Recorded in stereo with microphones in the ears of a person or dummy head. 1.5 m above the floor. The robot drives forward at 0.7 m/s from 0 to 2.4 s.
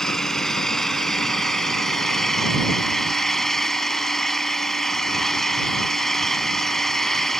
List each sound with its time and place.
0.0 s an engine running: centre (ahead or behind)